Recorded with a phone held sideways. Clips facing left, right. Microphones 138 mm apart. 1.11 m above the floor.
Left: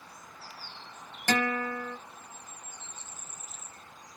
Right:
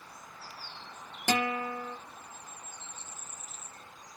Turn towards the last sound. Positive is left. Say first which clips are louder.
# left 1 dB
turn(degrees=-15)  # may be behind; listen again after turning